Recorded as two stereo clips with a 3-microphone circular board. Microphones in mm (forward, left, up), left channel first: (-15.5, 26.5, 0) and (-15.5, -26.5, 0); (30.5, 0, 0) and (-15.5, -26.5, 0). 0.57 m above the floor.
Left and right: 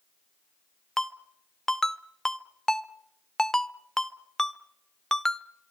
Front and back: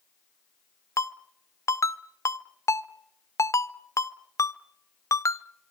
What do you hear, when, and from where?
1.0 s a ringtone: 10° left, 0.6 m